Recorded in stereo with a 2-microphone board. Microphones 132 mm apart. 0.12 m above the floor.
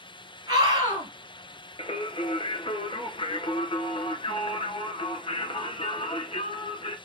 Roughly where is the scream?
Right.